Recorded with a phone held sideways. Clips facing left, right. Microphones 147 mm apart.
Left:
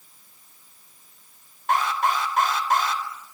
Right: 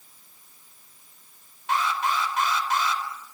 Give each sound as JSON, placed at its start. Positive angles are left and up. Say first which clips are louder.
{"t": 1.7, "sound": "an alarm", "louder": "left 3 dB", "side_deg": 50, "distance_m": 4.0}